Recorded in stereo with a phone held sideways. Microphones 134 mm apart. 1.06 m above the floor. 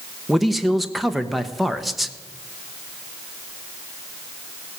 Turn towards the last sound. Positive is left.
turn(degrees=0)  # may be behind; listen again after turning